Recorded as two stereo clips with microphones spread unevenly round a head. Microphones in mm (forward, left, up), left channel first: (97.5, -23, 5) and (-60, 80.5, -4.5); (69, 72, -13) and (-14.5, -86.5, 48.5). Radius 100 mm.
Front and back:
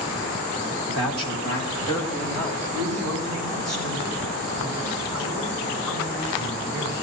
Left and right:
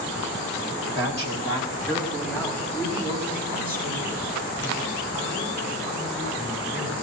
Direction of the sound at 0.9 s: Straight behind.